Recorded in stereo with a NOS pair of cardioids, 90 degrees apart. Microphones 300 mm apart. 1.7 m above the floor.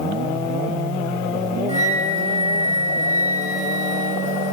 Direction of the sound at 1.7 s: 25° right.